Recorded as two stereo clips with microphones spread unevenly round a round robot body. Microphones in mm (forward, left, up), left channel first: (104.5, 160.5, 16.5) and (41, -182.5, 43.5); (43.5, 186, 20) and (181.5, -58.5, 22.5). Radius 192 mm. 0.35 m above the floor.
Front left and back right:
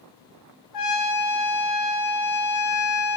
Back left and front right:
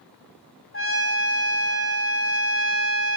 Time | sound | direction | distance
0.7 | a trumpet | 80° left | 2 m